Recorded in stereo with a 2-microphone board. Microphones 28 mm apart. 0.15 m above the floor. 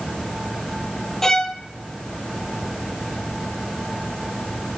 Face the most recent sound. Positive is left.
turn(degrees=15)  # may be behind; listen again after turning